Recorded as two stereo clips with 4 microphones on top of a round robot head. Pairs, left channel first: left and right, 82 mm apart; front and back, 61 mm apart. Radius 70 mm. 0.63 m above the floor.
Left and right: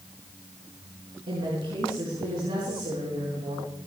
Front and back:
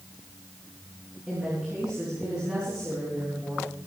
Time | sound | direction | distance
1.3 | a woman speaking | 105° right | 6.5 m